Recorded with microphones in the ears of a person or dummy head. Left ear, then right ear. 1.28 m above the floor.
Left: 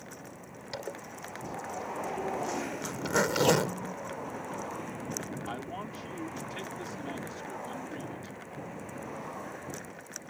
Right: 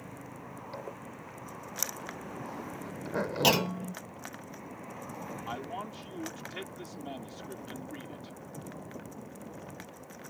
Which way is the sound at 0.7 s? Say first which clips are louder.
Left 6 dB; 65° left (ahead or behind).